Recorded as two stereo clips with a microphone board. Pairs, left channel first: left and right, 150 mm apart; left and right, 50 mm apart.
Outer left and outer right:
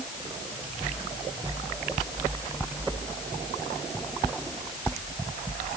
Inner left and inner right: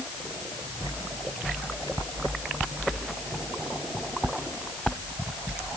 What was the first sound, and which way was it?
Only background noise.